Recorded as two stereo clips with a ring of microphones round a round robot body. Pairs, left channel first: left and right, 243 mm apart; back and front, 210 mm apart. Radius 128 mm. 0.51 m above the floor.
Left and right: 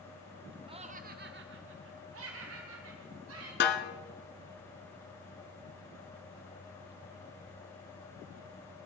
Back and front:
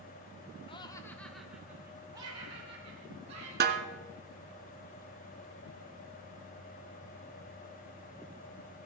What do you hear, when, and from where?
0.7 s laughter: 140° right, 0.9 m; by 3.5 s 65° right, 2.5 m
3.6 s a snare drum: 40° left, 1.1 m